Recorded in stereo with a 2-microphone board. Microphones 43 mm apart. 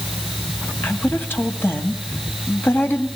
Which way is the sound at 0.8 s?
65° left (ahead or behind).